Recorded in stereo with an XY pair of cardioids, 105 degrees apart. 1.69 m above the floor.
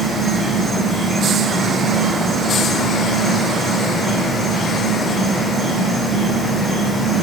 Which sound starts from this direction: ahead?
An insect, at 0.0 s.